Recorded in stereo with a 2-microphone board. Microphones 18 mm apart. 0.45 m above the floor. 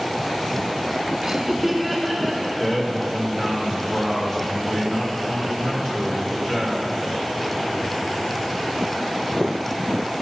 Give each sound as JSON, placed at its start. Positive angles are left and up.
{"t": 1.2, "sound": "laughter", "side_deg": -35, "distance_m": 0.8}
{"t": 2.6, "sound": "a man speaking", "side_deg": 30, "distance_m": 1.7}